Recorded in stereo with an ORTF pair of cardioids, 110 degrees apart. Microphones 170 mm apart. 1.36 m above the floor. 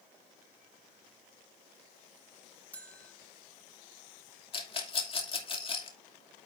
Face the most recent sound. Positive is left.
turn(degrees=35)